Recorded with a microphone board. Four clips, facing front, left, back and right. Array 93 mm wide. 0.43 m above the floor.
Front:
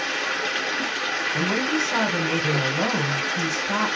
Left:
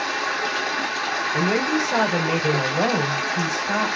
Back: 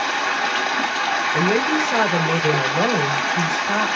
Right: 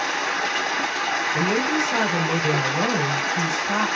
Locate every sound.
0.0 s running water: 170° right, 2 m
1.3 s a woman speaking: 170° left, 2.5 m